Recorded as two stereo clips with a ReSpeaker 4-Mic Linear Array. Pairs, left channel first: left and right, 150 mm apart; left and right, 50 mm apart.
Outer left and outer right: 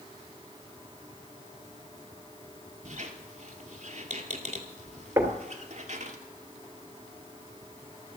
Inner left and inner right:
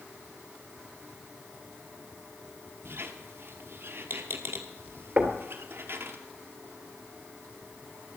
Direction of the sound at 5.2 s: 15° right (ahead or behind).